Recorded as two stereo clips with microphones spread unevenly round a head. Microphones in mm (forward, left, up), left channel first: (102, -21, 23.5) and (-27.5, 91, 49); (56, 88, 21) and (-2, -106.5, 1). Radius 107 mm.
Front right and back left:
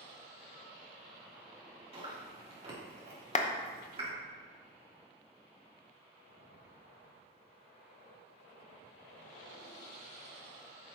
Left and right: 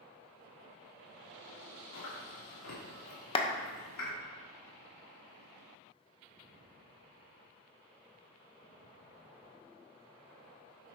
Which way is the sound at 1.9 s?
85° left.